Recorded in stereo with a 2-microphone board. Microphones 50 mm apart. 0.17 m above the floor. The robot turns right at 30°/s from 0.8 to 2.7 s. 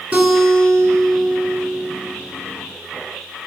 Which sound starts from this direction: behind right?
A guitar, at 0.1 s.